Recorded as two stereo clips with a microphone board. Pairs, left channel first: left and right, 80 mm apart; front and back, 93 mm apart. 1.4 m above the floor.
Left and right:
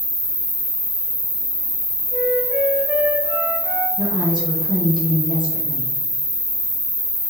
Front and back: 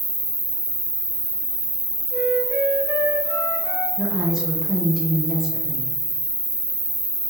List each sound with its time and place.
0.0 s an insect: 135° right, 1.3 m
2.1 s a flute: 95° right, 1.2 m
4.0 s a woman speaking: 95° right, 0.7 m